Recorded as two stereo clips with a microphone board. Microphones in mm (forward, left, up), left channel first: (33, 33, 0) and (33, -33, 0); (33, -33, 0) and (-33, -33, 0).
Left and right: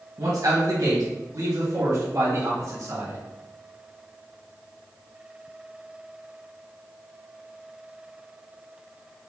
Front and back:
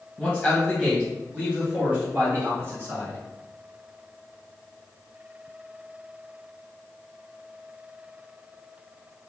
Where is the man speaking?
85° right, 1.3 m; by 3.2 s 130° right, 2.5 m.